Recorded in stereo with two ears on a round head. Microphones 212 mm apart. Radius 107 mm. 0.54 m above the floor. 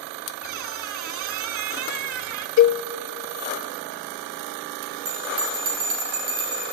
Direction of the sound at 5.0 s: 40° right (ahead or behind).